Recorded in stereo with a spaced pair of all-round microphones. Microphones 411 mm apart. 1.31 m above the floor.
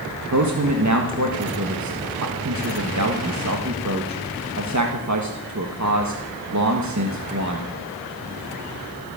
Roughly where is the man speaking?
Right.